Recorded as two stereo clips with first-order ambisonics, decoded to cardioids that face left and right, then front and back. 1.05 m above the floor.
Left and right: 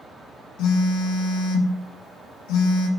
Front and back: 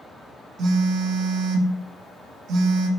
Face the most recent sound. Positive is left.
turn(degrees=125)